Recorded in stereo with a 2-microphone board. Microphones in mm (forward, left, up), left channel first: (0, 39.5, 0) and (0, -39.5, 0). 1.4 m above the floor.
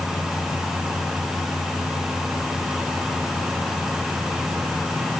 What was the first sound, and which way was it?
Only background noise.